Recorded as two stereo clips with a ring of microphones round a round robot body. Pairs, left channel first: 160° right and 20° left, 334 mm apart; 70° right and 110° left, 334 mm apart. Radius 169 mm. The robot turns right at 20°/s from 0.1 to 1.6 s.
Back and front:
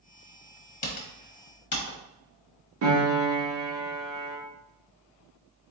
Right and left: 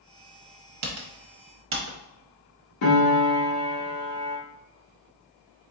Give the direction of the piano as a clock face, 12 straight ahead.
1 o'clock.